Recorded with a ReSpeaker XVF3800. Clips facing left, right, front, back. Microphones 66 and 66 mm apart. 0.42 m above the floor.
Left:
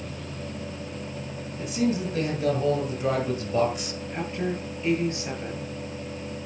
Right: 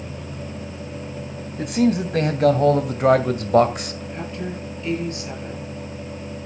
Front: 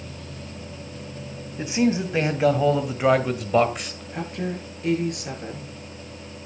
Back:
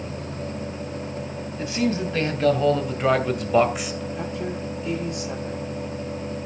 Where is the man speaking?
70° right, 2.5 m; by 4.0 s 100° right, 1.8 m.